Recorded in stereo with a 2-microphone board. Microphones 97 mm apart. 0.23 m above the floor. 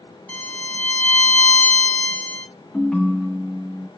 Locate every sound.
0.3 s a violin: 15° left (ahead or behind), 2 m
2.7 s a ringtone: 10° left (ahead or behind), 1.7 m